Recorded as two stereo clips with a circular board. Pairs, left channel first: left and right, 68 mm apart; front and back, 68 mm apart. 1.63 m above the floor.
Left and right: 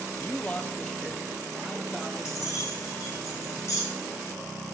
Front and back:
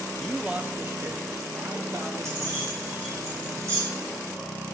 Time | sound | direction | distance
0.2 | a man speaking | 95° left | 0.5 m
2.2 | keys jangling | 135° left | 5 m